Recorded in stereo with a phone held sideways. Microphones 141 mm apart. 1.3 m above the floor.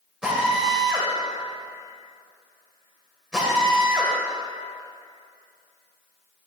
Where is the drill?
5° right (ahead or behind), 3 m.